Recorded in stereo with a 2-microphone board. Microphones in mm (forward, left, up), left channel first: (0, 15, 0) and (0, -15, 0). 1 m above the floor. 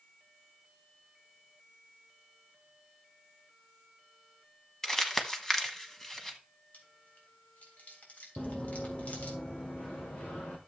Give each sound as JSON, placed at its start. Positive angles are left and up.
{"t": 4.8, "sound": "crumpling", "side_deg": 15, "distance_m": 1.2}
{"t": 6.7, "sound": "chewing", "side_deg": 65, "distance_m": 3.5}
{"t": 8.4, "sound": "running footsteps", "side_deg": 10, "distance_m": 1.2}